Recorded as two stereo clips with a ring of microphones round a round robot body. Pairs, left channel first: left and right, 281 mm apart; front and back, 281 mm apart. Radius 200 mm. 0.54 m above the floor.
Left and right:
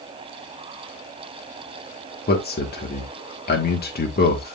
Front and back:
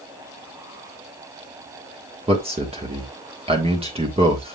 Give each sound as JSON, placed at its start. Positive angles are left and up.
{"t": 2.3, "sound": "a man speaking", "azimuth_deg": 120, "distance_m": 1.5}